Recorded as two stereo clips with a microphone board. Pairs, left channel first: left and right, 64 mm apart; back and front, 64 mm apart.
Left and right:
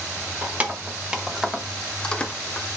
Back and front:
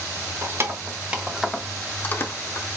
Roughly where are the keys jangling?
Ahead right.